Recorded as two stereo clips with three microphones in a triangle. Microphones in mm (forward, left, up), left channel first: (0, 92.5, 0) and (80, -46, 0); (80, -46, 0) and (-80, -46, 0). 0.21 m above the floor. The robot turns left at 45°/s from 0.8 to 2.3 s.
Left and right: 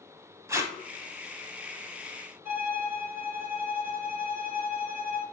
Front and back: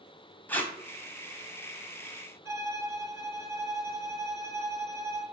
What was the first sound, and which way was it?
Tape being pulled, 50° right.